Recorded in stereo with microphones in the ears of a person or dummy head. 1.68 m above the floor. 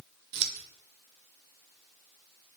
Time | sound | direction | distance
0.3 | scissors | 60° right (ahead or behind) | 0.6 m